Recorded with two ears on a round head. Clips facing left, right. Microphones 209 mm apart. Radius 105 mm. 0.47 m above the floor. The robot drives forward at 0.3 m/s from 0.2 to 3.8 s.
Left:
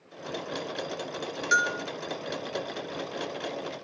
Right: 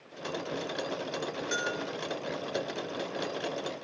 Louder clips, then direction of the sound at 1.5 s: Left 1 dB; 25° left (ahead or behind).